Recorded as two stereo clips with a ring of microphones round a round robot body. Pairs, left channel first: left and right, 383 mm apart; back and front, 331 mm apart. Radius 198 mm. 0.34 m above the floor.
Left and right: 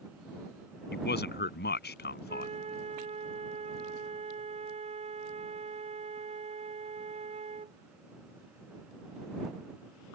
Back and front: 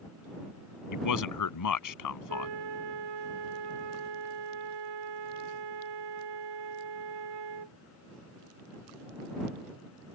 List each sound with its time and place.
0.9 s a man speaking: 155° left
2.3 s a flute: 15° right